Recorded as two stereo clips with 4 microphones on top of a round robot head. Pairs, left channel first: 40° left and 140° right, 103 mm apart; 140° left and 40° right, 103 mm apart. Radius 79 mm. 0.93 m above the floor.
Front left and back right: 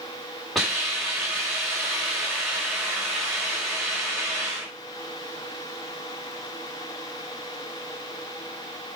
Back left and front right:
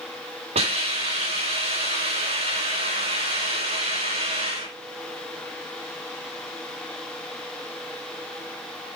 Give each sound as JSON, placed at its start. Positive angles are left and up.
{"t": 0.6, "sound": "a hiss", "azimuth_deg": -50, "distance_m": 6.0}